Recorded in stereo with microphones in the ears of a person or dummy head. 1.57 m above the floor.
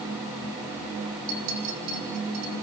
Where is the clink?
70° right (ahead or behind), 4 m.